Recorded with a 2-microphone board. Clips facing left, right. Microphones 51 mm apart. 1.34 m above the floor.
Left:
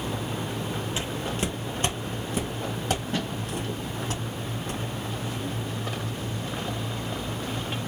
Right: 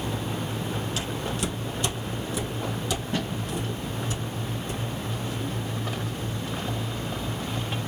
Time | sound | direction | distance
1.0 | footsteps | 30° left (ahead or behind) | 1.5 m